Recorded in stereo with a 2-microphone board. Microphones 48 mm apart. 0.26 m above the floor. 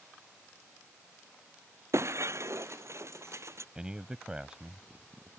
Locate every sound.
1.9 s breaking glass: 60° right (ahead or behind)
3.8 s a man speaking: 15° right (ahead or behind)